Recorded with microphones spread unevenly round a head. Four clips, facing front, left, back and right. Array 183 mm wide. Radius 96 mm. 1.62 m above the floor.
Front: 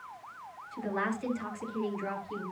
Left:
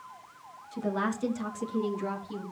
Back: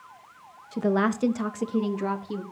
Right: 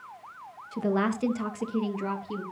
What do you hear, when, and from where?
0.7 s a woman speaking: 160° right, 2 m; by 2.4 s 165° right, 3 m